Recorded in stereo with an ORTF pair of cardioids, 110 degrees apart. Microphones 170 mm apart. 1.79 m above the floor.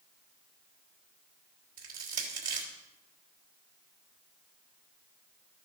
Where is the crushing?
55° right, 3.5 m.